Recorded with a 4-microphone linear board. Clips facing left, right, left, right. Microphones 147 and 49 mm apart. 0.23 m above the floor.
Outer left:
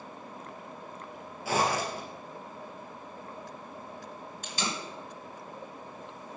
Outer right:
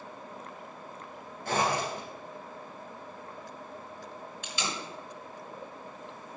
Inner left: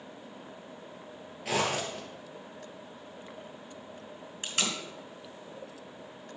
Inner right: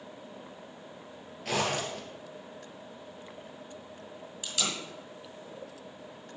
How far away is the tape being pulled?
About 3 m.